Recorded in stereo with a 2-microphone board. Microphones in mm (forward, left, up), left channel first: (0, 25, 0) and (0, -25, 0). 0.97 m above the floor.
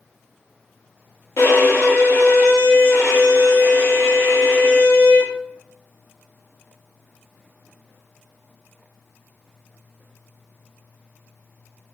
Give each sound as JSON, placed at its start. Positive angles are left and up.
{"t": 1.4, "sound": "a violin", "side_deg": 65, "distance_m": 0.9}